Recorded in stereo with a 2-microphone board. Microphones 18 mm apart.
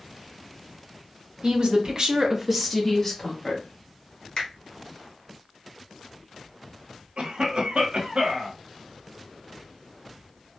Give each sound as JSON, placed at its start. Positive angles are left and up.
{"t": 1.4, "sound": "a woman speaking", "side_deg": -55, "distance_m": 0.8}
{"t": 4.4, "sound": "a finger snap", "side_deg": 60, "distance_m": 1.0}
{"t": 7.2, "sound": "a cough", "side_deg": -60, "distance_m": 0.8}